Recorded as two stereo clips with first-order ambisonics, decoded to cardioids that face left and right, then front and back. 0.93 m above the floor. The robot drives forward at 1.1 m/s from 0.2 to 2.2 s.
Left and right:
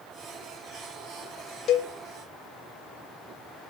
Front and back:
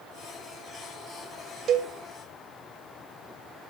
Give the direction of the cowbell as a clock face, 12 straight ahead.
8 o'clock.